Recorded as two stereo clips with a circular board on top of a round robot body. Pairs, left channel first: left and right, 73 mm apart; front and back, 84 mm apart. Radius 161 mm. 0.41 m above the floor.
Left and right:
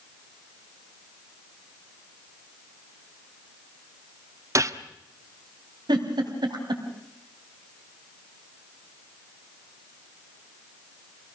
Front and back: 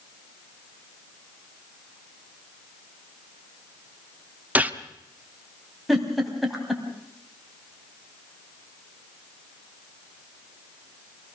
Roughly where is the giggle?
Right.